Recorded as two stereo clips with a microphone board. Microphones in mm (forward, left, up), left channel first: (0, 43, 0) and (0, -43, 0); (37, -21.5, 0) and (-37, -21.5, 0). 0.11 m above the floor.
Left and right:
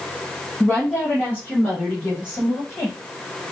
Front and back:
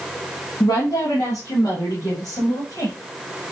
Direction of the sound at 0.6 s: 15° left.